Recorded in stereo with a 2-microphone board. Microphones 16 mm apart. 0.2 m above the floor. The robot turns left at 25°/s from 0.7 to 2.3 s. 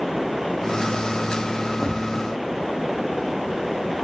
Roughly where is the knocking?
Right.